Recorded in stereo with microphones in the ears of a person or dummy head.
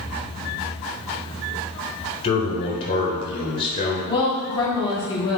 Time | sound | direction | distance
2.2 | a man speaking | 25° left (ahead or behind) | 1.1 m
4.1 | a woman speaking | 25° left (ahead or behind) | 1.1 m